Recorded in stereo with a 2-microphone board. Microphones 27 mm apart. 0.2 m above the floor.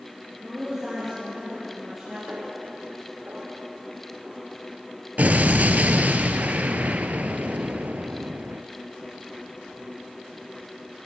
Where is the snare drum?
50° right (ahead or behind), 3 m.